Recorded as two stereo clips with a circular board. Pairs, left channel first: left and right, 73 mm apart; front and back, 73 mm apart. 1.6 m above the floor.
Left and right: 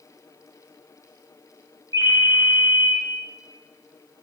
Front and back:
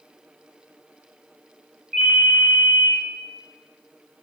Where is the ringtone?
75° right, 0.9 m.